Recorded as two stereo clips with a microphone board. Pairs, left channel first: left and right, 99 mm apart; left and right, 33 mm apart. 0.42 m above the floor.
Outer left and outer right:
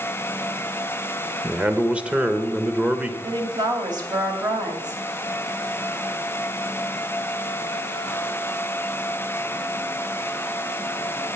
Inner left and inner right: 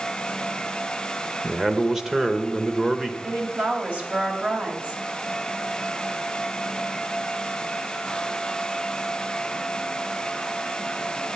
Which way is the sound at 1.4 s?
10° right (ahead or behind).